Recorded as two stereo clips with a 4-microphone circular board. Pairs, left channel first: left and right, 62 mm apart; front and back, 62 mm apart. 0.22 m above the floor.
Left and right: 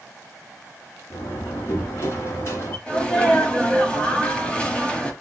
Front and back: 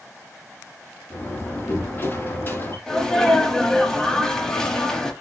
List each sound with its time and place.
1.1 s a door slam: 55° left, 3 m
2.9 s a sneeze: 65° left, 1.0 m